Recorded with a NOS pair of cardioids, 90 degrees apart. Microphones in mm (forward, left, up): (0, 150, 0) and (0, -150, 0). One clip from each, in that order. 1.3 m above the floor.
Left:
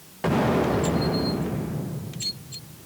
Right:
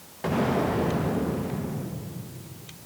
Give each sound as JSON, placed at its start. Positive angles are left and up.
{"t": 0.2, "sound": "an explosion", "azimuth_deg": 20, "distance_m": 1.0}